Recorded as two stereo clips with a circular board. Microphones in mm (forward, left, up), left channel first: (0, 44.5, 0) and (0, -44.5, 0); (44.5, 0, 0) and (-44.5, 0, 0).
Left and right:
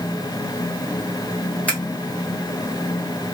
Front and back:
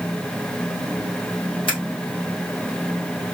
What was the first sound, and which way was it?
Scissors, 15° left.